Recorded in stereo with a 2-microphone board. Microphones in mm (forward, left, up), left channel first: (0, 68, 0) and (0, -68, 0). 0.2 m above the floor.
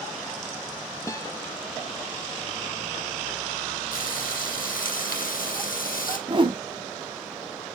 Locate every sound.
1.1 s a guitar: 25° left (ahead or behind), 0.6 m
3.9 s frying: 85° left, 2.5 m
6.3 s a whoosh: 35° right (ahead or behind), 0.5 m